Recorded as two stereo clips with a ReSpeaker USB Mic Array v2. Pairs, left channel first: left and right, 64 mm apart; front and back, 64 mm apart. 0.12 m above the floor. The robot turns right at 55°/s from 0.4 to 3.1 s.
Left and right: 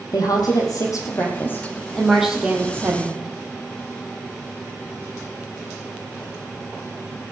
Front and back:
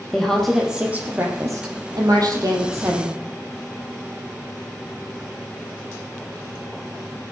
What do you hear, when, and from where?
0.1 s a woman speaking: 85° left, 4 m; by 3.2 s 130° right, 4 m